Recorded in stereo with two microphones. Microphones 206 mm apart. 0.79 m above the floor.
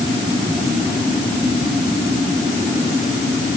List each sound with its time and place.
Only background noise.